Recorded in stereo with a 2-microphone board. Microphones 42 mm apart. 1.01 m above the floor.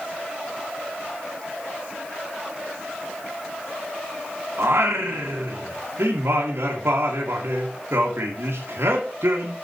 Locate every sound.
4.6 s singing: 75° right (ahead or behind), 1.6 m